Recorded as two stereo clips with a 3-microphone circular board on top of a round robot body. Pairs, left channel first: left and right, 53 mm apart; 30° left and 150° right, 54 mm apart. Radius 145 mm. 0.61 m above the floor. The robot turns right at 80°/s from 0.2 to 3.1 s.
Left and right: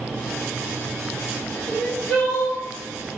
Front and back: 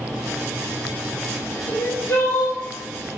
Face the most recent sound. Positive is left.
turn(degrees=120)